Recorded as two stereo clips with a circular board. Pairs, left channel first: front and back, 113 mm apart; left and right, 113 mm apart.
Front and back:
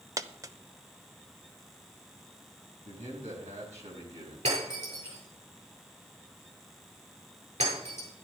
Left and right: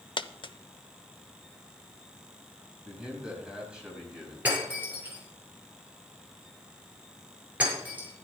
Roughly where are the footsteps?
No footsteps in this recording.